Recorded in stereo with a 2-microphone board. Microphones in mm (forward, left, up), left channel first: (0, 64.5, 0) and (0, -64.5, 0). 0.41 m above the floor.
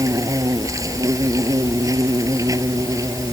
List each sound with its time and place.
0.0 s an insect: 25° right (ahead or behind)